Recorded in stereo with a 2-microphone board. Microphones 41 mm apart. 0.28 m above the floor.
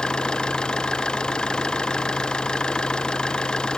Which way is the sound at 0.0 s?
20° left (ahead or behind).